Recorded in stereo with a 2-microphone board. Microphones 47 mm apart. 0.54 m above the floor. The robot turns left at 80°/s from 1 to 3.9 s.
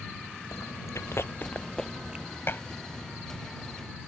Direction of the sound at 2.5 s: 60° left (ahead or behind).